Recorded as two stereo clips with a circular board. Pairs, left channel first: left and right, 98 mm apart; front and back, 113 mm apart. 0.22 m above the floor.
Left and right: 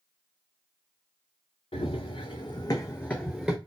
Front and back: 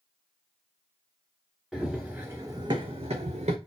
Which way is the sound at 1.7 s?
95° left.